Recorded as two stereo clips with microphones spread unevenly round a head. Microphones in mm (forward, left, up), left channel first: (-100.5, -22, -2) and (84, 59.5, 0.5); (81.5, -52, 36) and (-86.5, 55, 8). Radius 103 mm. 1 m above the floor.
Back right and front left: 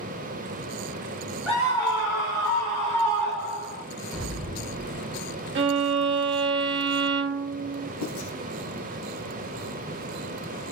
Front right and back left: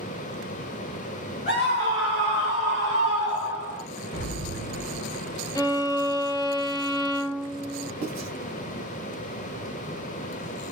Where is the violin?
35° left, 0.6 m.